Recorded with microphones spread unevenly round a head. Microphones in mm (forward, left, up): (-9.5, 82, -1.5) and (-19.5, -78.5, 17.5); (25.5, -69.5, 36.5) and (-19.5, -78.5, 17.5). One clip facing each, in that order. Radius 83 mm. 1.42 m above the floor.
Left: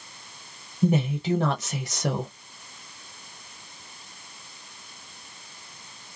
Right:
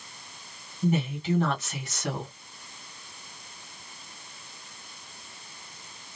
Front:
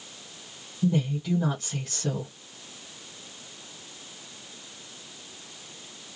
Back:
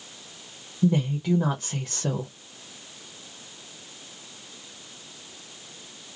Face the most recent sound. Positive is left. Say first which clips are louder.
# left 3 dB, back 3 dB
turn(degrees=140)